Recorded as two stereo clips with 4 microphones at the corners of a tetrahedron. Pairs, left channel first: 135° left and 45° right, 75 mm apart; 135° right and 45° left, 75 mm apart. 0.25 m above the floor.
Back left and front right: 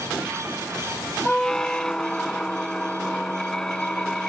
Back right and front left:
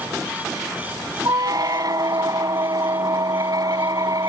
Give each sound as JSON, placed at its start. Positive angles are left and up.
{"t": 1.2, "sound": "a squeak", "azimuth_deg": 55}